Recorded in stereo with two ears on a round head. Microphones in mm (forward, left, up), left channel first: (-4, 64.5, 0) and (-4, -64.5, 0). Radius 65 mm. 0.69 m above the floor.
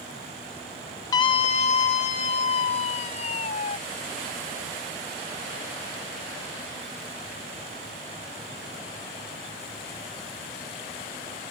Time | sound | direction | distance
1.1 | a scream | 25° left (ahead or behind) | ?